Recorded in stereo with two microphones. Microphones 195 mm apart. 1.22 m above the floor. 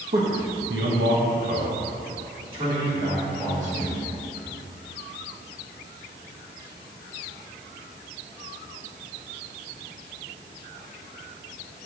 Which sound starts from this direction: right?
A man speaking, at 0.1 s.